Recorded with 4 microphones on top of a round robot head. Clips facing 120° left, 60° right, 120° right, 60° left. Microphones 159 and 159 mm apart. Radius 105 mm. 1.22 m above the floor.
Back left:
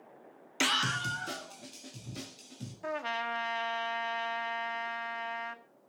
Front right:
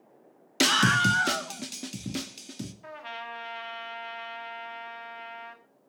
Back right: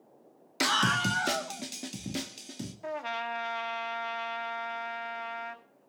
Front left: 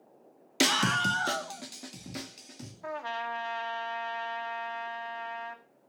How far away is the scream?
About 0.6 m.